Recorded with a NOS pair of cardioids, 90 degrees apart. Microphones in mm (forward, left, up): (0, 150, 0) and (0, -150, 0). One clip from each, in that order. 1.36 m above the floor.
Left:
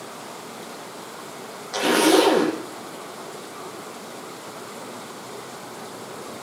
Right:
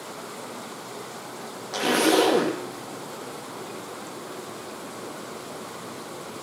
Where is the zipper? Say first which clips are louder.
Left 3 dB; 10° left, 1.9 m.